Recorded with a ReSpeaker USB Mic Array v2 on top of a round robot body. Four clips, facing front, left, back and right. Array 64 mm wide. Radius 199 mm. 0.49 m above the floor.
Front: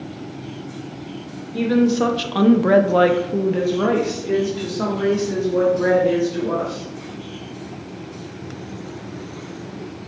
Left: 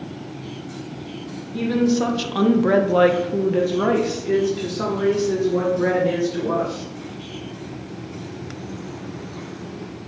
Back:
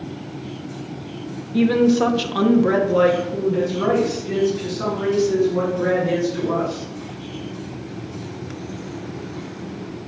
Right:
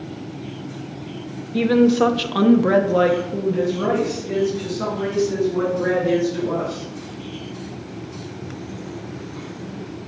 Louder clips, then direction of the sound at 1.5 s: Right 4 dB, back 1 dB; 105° right.